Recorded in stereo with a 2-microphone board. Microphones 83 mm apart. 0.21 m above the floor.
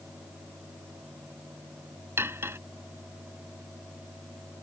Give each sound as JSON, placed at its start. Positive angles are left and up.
{"t": 2.2, "sound": "cutlery clinking", "side_deg": -30}